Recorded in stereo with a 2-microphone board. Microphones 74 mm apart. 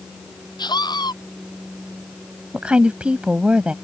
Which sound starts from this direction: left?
A scream, at 0.6 s.